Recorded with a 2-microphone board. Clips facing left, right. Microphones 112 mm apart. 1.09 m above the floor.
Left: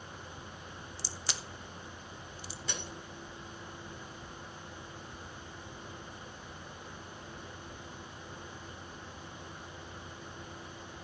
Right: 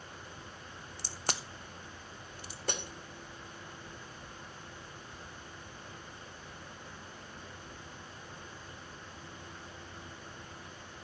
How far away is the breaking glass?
About 2 m.